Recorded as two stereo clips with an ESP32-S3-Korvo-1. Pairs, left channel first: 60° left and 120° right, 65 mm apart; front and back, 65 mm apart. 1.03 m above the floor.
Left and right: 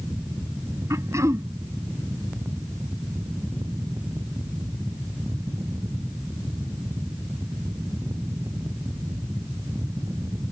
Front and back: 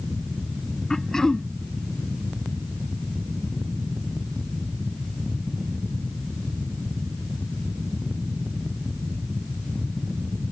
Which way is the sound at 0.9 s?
80° right.